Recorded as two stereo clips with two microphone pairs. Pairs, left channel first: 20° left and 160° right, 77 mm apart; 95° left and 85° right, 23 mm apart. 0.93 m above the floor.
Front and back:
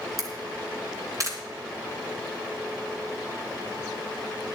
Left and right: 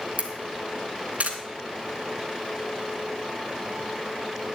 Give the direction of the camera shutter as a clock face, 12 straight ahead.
4 o'clock.